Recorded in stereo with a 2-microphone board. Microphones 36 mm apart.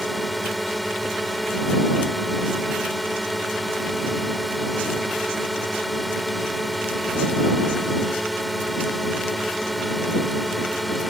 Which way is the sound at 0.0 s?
Centre (ahead or behind).